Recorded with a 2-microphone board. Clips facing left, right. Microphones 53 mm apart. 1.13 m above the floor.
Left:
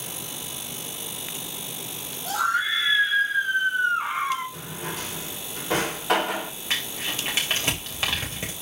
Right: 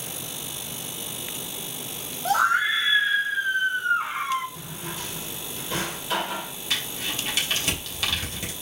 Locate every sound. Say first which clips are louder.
2.2 s a scream: right 3 dB; 50° right (ahead or behind), 1.4 m; by 4.4 s 15° left (ahead or behind), 3 m
4.5 s a drawer: left 2 dB; 70° left (ahead or behind), 2.5 m
6.7 s crumpling: left 1 dB; 30° left (ahead or behind), 3 m